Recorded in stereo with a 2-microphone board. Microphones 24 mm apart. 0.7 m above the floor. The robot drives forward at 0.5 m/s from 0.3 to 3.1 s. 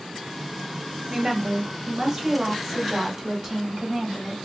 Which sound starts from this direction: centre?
A woman speaking, at 1.1 s.